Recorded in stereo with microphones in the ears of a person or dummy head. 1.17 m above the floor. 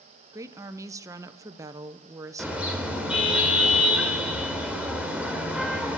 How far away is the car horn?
About 2 m.